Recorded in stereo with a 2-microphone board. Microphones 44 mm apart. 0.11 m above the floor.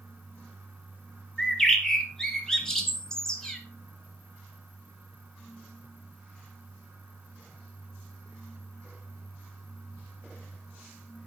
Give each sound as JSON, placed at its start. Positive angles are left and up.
{"t": 1.4, "sound": "a bird", "side_deg": 15, "distance_m": 1.3}